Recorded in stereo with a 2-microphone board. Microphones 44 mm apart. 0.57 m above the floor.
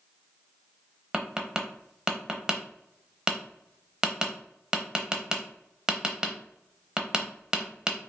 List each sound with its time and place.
1.1 s tapping: 15° right (ahead or behind), 0.8 m